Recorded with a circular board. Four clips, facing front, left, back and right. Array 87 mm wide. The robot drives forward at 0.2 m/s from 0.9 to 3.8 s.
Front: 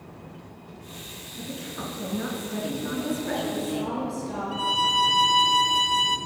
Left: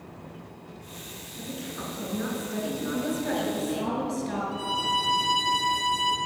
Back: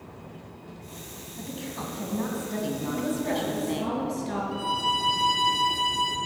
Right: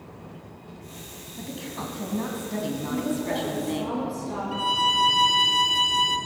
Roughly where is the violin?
Right.